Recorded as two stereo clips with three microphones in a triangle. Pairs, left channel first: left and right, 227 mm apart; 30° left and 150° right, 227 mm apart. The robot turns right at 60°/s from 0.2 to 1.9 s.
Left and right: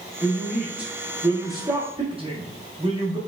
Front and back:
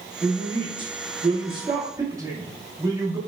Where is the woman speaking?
160° left, 0.7 m; by 3.2 s 100° right, 0.7 m.